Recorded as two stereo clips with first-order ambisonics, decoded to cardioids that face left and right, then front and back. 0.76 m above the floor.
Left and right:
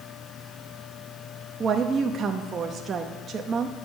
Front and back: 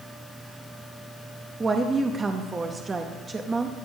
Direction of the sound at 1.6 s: 125° right.